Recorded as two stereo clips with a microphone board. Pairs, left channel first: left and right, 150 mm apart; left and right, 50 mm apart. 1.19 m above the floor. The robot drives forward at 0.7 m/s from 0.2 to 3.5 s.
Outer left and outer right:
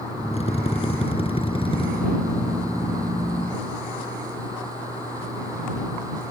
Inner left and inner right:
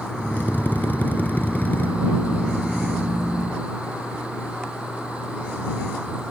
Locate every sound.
0.3 s a drill: 45° left (ahead or behind); by 1.9 s 35° left (ahead or behind)